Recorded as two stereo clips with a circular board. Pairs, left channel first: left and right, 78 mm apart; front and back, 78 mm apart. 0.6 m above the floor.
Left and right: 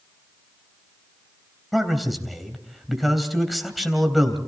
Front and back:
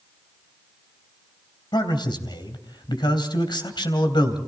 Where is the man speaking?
Straight ahead, 3 m.